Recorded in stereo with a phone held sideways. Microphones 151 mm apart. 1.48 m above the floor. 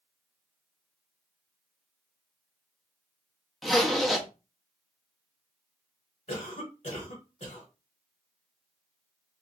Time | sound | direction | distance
3.6 | a zipper | centre (ahead or behind) | 0.8 m
6.3 | a cough | 45° left (ahead or behind) | 1.1 m